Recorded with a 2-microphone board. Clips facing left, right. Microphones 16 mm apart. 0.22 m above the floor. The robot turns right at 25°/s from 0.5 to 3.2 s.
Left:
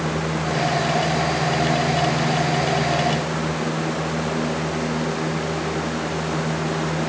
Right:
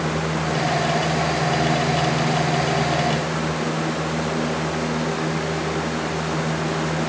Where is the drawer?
No drawer in this recording.